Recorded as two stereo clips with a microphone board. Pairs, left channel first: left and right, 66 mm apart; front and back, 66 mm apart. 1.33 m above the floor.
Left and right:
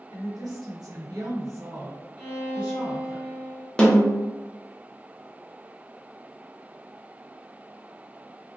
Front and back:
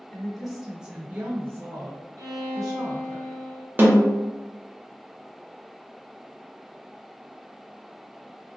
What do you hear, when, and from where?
0.1 s a woman speaking: 80° right, 1.1 m; by 3.2 s 170° right, 1.4 m
2.2 s a violin: 165° right, 1.1 m
3.8 s a snare drum: 150° left, 0.6 m